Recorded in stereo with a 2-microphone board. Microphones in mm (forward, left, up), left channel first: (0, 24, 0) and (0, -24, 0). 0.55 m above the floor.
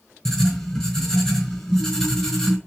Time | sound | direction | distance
0.2 | writing | 15° left (ahead or behind) | 4.5 m